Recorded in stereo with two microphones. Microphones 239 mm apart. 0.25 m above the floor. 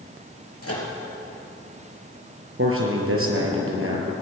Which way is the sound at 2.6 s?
65° right (ahead or behind).